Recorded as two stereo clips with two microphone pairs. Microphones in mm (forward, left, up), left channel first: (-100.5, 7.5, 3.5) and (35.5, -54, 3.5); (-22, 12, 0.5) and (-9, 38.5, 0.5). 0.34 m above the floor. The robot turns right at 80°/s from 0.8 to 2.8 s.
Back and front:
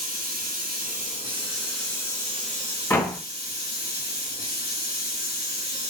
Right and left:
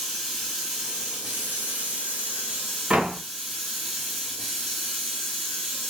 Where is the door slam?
90° left, 1.1 m.